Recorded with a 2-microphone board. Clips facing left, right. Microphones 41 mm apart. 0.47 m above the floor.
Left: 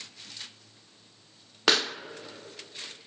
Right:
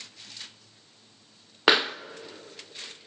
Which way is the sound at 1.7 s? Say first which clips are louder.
Right 4 dB; 20° right (ahead or behind).